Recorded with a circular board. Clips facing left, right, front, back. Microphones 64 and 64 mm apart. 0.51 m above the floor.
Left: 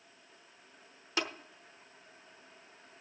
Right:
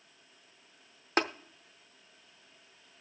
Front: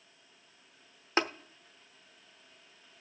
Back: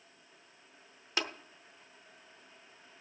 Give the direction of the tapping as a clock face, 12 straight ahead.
2 o'clock.